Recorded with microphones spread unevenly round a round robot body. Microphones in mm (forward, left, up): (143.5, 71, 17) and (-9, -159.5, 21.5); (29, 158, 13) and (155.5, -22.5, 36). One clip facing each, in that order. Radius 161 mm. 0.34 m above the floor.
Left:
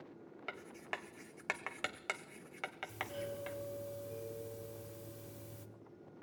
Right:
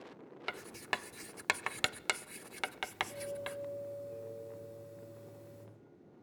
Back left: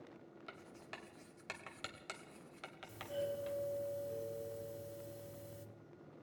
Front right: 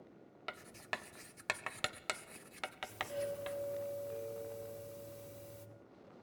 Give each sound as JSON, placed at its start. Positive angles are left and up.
{"t": 0.5, "sound": "writing", "azimuth_deg": -90, "distance_m": 0.5}
{"t": 2.9, "sound": "a doorbell", "azimuth_deg": 55, "distance_m": 1.9}